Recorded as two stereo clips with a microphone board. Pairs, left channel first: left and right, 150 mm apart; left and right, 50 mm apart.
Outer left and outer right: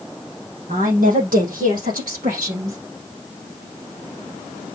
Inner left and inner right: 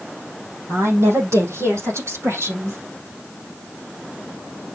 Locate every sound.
0.7 s a woman speaking: 65° right (ahead or behind), 5.5 m; by 2.8 s 70° right (ahead or behind), 4.5 m